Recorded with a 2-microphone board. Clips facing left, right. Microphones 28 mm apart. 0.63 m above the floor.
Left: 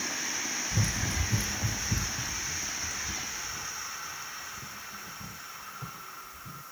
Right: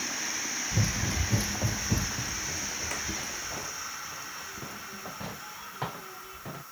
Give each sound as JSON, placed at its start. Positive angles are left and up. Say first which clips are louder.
{"t": 0.7, "sound": "running footsteps", "louder": "right 2 dB", "side_deg": -20}